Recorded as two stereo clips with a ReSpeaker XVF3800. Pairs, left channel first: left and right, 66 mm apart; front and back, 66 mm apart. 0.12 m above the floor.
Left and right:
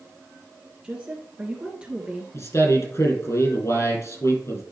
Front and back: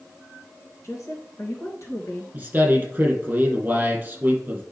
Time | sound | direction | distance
0.8 | a woman speaking | 20° right | 2.5 m
2.3 | a man speaking | 120° left | 3 m